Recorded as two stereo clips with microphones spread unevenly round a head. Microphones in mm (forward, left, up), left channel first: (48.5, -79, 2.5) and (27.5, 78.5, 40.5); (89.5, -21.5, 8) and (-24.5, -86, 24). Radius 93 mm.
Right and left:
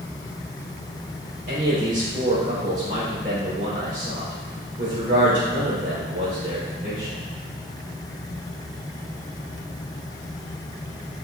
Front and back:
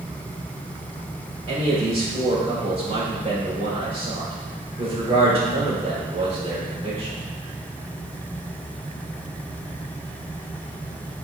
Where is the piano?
No piano in this recording.